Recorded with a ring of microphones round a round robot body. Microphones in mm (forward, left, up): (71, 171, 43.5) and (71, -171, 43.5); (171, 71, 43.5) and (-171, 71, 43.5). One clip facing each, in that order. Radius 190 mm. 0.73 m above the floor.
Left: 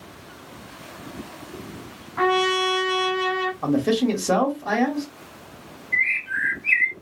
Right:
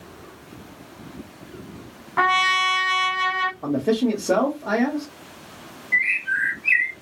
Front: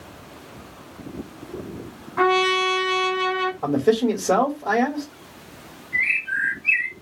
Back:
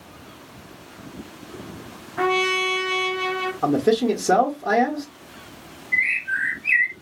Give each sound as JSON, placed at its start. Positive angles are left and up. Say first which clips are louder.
{"t": 2.2, "sound": "a trumpet", "louder": "left 9 dB, front 2 dB", "azimuth_deg": -75, "distance_m": 0.8}
{"t": 3.6, "sound": "a man speaking", "louder": "even, even", "azimuth_deg": 140, "distance_m": 1.0}
{"t": 5.9, "sound": "a bird", "louder": "right 1 dB, even", "azimuth_deg": -130, "distance_m": 1.2}